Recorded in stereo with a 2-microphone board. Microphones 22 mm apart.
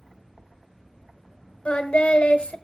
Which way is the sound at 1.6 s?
85° left.